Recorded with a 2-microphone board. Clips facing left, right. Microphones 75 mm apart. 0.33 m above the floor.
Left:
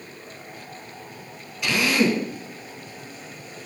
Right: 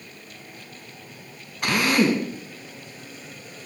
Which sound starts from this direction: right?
A drill, at 1.6 s.